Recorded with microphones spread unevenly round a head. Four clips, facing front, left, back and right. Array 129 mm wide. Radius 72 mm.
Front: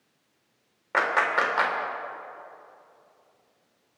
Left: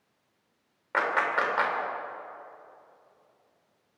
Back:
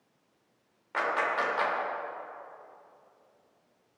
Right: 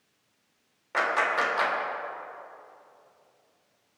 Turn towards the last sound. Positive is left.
turn(degrees=10)